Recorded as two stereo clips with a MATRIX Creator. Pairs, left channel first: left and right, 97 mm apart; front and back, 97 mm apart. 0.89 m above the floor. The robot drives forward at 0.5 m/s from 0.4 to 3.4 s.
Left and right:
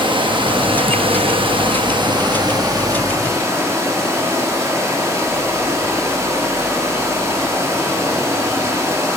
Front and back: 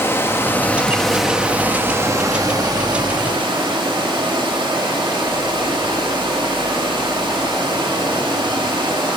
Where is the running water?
65° right, 0.9 m; by 9.2 s 145° right, 1.4 m.